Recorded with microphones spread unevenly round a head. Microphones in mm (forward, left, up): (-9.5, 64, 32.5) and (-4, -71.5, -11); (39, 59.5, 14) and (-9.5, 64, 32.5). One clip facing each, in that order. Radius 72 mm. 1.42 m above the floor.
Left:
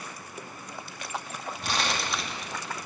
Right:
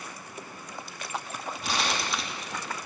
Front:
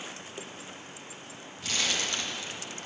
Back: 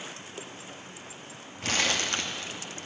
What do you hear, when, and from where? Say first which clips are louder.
1.6 s crumpling: even, back 3 dB; 175° left, 1.4 m